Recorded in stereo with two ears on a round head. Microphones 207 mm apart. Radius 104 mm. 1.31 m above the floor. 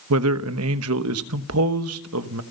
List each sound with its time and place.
0.1 s a man speaking: 65° right (ahead or behind), 1.1 m